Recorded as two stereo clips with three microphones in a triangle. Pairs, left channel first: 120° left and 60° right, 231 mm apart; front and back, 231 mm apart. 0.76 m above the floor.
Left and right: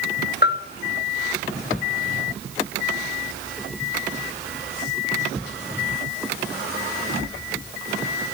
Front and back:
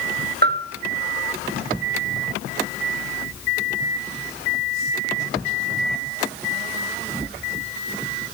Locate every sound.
0.4 s a bell: 150° left, 0.5 m